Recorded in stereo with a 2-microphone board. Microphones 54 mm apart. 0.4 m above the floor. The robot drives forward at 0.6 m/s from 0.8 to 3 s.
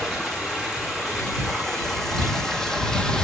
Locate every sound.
0.0 s running water: 5° left (ahead or behind), 2.5 m; by 3.2 s 15° left (ahead or behind), 1.1 m